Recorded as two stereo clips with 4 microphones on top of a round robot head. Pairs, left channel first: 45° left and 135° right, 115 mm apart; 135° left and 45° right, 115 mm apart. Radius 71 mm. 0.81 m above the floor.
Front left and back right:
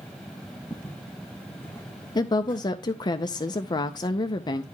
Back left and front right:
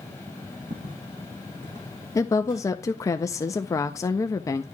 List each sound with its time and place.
0.7 s footsteps: 20° right, 2.5 m; by 2.7 s 30° right, 3.5 m
2.1 s a woman speaking: 85° left, 0.5 m